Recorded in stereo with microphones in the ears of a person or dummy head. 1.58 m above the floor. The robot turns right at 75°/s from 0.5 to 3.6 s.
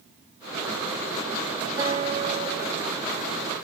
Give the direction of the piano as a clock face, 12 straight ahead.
5 o'clock.